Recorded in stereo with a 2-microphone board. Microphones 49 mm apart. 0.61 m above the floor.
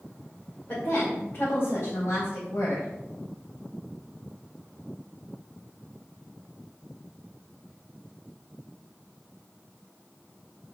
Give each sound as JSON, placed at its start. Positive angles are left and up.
{"t": 0.7, "sound": "a woman speaking", "side_deg": 35, "distance_m": 2.5}